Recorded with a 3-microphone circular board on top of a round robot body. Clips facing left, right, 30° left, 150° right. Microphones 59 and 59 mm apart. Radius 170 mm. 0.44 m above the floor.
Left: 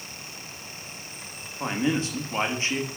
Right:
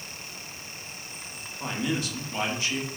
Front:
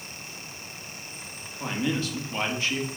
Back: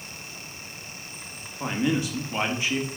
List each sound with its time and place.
1.6 s a man speaking: 140° left, 1.6 m